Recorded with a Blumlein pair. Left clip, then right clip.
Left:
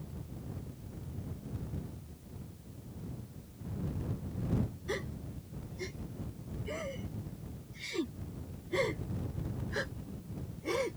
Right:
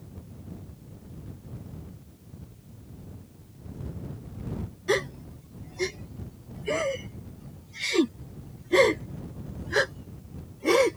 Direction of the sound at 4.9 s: 30° right.